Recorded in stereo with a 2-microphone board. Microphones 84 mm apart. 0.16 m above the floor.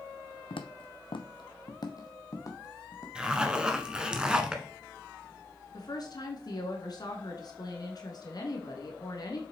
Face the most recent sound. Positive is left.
turn(degrees=50)  # may be behind; listen again after turning